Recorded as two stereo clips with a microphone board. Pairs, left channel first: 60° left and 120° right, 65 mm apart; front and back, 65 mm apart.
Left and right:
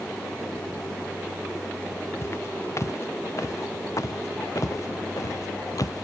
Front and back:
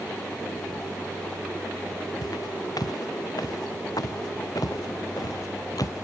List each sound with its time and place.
2.2 s footsteps: 15° left; by 6.0 s 30° left